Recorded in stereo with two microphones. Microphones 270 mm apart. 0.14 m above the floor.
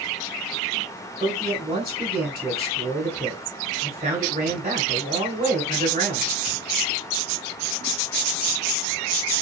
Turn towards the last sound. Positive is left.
turn(degrees=-30)  # may be behind; listen again after turning